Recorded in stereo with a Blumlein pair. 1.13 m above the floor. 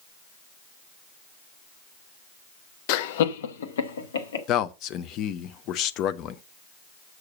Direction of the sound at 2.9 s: 45° left.